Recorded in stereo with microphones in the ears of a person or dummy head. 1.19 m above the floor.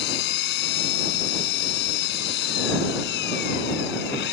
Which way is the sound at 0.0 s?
70° left (ahead or behind).